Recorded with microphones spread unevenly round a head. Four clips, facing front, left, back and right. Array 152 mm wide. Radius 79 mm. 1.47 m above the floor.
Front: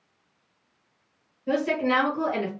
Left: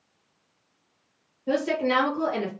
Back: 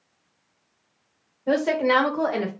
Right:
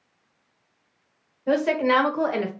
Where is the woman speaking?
135° right, 1.6 m.